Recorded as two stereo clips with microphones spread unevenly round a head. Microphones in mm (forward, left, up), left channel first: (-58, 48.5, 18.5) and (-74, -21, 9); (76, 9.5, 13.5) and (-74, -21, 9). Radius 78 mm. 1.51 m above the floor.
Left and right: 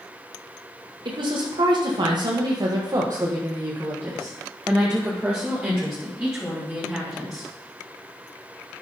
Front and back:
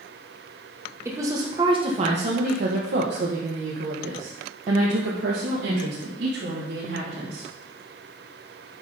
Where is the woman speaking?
95° right, 1.4 m; by 7.5 s 170° left, 3.5 m.